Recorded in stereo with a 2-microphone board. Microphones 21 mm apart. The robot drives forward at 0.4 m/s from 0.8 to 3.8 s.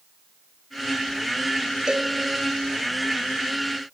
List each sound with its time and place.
1.9 s a cowbell: 45° right (ahead or behind), 2 m